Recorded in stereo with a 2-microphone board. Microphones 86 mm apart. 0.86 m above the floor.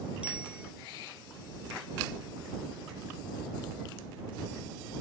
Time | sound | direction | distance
0.2 | a bicycle bell | 15° right (ahead or behind) | ?